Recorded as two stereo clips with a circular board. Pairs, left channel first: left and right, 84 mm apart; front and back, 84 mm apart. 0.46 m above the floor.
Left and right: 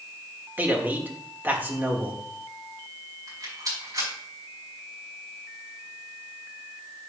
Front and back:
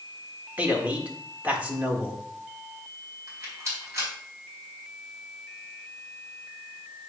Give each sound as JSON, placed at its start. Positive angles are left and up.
{"t": 0.6, "sound": "a man speaking", "azimuth_deg": -130, "distance_m": 1.4}
{"t": 3.3, "sound": "a rattle", "azimuth_deg": -125, "distance_m": 3.5}